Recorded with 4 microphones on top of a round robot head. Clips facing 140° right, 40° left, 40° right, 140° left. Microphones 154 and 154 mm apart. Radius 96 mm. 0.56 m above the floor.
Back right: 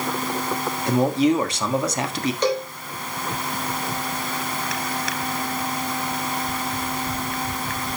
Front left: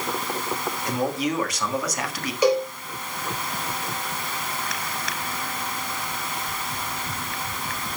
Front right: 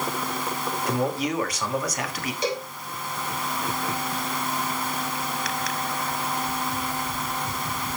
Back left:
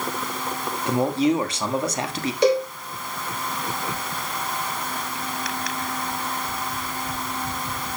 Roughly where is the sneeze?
No sneeze in this recording.